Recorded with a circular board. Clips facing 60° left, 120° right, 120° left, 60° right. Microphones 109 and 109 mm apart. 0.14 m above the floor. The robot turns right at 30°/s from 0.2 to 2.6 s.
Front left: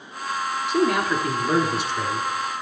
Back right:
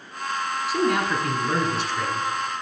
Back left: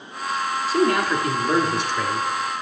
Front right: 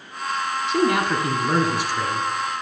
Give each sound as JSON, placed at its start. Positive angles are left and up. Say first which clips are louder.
{"t": 0.7, "sound": "a man speaking", "louder": "front left 2 dB, even", "azimuth_deg": -30, "distance_m": 1.1}